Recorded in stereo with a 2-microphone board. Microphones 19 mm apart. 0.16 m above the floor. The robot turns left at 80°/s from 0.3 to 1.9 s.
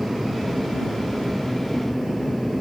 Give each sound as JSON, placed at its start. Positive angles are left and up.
{"t": 0.0, "sound": "an aircraft", "side_deg": -40}